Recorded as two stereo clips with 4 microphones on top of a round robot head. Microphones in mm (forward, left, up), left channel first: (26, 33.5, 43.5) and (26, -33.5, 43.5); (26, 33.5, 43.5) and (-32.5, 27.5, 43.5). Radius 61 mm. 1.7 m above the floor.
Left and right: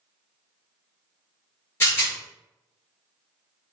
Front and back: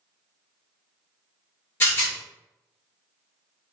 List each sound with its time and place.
1.8 s a rattle: 45° left, 1.7 m